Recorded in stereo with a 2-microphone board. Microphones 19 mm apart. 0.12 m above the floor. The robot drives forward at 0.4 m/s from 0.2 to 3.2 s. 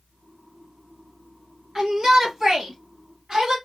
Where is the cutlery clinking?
I don't hear cutlery clinking.